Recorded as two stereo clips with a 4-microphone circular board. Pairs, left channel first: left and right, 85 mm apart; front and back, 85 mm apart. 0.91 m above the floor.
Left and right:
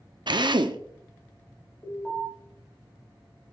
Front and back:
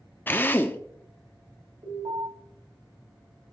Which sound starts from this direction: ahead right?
A drill, at 0.3 s.